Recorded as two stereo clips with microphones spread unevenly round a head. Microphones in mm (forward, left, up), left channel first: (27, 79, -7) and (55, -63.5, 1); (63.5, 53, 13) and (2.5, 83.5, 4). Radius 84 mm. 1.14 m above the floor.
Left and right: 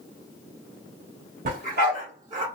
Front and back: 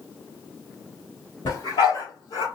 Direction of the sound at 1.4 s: 60° right.